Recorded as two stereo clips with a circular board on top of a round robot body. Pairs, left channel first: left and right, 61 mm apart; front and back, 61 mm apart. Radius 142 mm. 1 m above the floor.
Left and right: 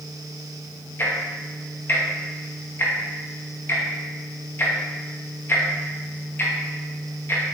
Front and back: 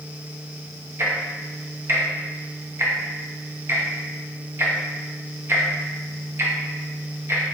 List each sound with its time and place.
1.0 s ticking: 135° left, 0.8 m